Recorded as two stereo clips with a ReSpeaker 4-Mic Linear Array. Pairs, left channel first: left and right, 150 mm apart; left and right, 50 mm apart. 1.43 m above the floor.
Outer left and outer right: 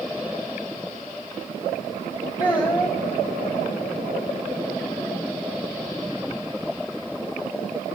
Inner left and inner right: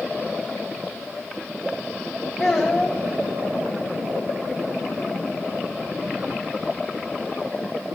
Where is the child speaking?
30° left (ahead or behind), 1.1 m.